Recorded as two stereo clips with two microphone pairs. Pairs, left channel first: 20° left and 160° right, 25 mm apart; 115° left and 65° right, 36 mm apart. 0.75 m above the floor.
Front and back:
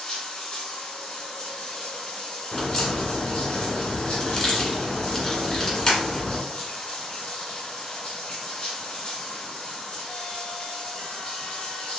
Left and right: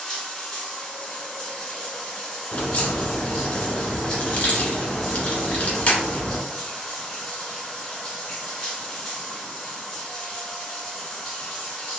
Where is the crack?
70° left, 1.6 m.